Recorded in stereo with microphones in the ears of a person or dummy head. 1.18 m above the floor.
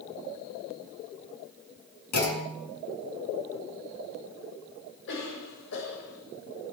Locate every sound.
2.1 s a clunk: 50° left (ahead or behind), 7.5 m
5.1 s a cough: 75° left (ahead or behind), 7 m